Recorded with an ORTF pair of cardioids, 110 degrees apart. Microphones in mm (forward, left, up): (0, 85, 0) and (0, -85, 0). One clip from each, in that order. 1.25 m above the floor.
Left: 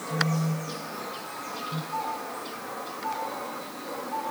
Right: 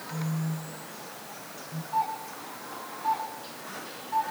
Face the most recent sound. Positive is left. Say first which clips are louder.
# right 5 dB
turn(degrees=25)